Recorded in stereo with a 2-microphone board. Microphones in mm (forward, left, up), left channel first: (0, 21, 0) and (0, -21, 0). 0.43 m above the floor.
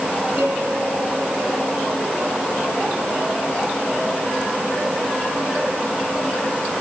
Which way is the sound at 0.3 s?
65° right (ahead or behind).